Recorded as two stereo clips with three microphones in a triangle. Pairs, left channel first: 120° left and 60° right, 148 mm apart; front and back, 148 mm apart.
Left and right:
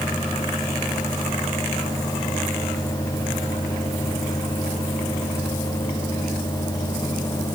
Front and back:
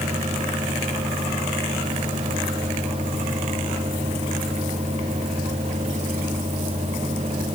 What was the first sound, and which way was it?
Only background noise.